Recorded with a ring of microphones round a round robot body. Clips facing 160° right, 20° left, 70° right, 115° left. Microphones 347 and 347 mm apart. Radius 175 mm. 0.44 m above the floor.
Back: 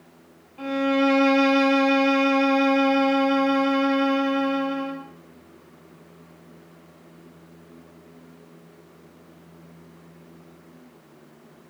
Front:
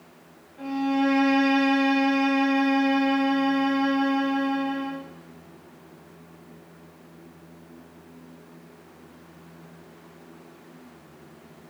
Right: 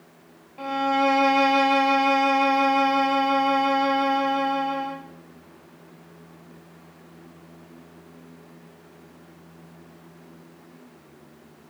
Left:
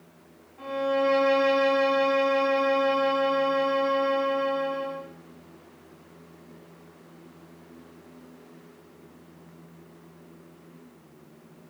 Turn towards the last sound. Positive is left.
turn(degrees=-100)